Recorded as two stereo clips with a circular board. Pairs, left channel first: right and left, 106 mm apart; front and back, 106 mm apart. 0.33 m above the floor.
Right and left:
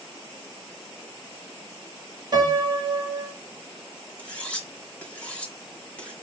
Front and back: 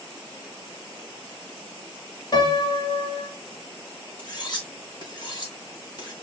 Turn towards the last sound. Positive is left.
turn(degrees=-20)